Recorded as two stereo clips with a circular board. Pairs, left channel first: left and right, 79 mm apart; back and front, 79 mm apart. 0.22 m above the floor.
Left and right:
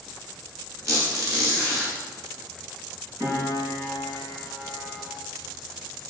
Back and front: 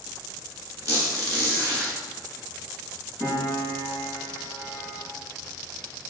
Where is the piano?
135° right, 1.6 m.